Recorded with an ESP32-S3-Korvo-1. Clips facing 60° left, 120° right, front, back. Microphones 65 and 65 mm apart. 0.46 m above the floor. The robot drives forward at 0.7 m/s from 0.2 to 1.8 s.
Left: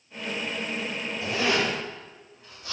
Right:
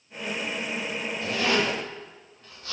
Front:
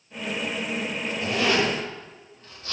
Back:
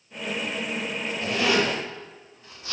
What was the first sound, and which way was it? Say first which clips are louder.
A zipper: even, even; 60° left.